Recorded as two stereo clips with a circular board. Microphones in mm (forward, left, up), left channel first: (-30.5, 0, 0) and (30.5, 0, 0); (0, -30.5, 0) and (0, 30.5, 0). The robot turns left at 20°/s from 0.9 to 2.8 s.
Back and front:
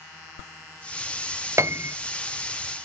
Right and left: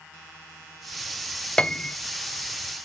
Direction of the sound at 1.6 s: 20° right.